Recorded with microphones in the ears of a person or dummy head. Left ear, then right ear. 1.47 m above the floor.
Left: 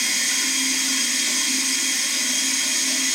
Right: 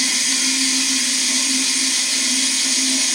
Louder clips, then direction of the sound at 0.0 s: Right 3 dB; 25° left (ahead or behind).